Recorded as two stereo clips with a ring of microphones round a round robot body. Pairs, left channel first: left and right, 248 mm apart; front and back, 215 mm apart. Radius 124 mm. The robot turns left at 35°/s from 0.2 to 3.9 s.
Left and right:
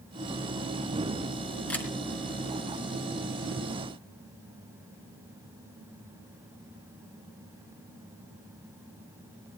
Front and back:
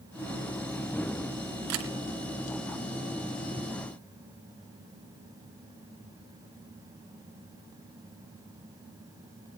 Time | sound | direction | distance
1.7 | a camera shutter | 175° left | 3.5 m